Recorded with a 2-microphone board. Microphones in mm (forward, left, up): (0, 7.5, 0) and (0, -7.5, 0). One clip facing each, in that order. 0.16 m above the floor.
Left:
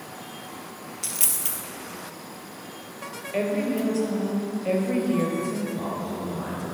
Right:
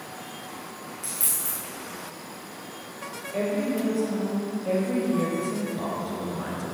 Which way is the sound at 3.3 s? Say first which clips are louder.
Left 1 dB; 70° left (ahead or behind).